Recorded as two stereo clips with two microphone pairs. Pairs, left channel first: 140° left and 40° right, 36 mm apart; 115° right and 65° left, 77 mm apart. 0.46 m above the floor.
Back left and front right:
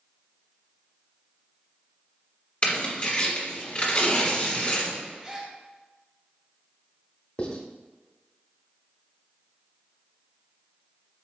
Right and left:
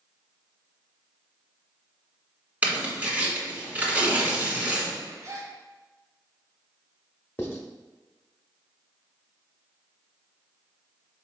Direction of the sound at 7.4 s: 175° right.